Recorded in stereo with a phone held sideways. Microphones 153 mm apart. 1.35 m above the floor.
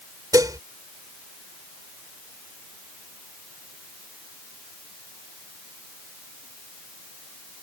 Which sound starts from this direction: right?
Dishes clattering, at 0.3 s.